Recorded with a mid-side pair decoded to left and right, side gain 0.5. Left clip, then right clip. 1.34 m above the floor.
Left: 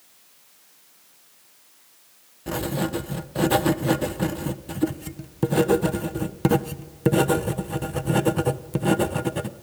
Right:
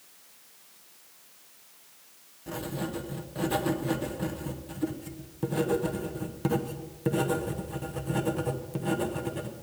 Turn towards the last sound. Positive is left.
turn(degrees=55)